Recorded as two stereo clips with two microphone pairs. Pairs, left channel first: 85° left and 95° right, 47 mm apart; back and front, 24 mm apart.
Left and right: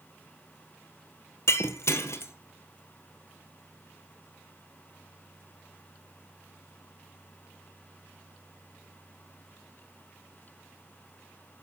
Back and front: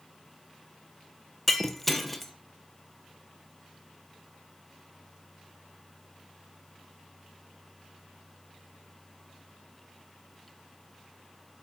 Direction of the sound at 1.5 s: 100° left.